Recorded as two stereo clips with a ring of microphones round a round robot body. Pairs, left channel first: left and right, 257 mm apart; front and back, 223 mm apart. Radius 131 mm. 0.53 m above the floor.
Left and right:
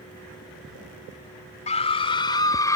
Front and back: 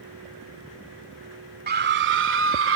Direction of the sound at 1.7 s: 150° left.